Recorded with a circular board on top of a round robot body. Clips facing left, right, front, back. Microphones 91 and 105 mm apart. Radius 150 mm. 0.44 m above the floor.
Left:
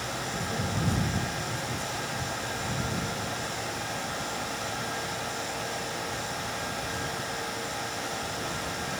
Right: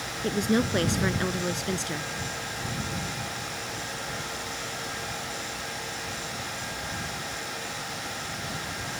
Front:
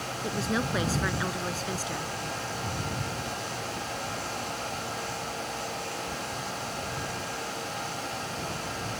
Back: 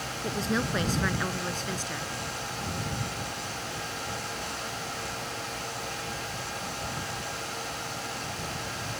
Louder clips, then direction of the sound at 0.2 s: Right 12 dB, back 1 dB; 85° right.